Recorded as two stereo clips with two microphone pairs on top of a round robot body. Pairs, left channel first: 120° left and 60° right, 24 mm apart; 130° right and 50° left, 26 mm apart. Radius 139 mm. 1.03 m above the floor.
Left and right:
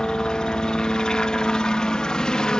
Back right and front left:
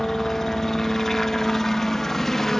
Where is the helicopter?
165° left.